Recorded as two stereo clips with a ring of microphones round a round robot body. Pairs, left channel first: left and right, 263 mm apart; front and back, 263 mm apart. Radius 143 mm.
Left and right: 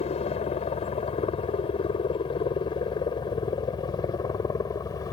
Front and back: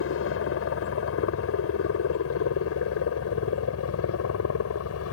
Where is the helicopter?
25° left; by 5.1 s 15° left.